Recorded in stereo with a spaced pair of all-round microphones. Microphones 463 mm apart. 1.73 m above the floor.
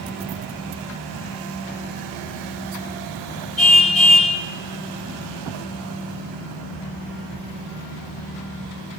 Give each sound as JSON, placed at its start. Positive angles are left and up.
{"t": 3.6, "sound": "a car horn", "side_deg": -75, "distance_m": 4.0}